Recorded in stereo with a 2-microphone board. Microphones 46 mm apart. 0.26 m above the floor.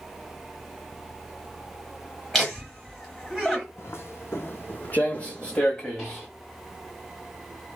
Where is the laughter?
Centre (ahead or behind), 1.0 m.